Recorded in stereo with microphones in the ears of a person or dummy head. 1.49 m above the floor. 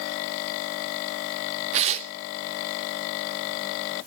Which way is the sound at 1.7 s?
25° right (ahead or behind).